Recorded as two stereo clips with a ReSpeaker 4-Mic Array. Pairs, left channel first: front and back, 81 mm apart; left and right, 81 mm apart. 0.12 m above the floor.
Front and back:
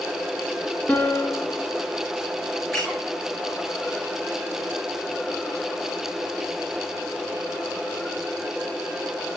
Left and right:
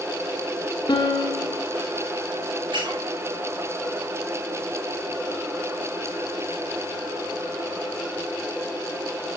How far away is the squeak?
About 6.5 m.